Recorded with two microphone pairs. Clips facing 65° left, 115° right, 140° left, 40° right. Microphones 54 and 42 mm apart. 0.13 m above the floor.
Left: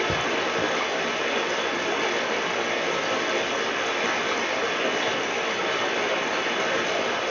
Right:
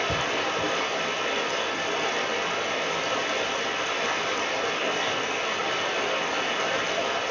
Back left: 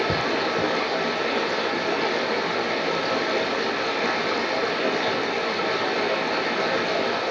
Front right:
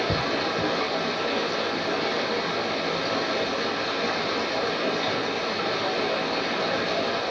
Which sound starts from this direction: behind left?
Running water, at 0.0 s.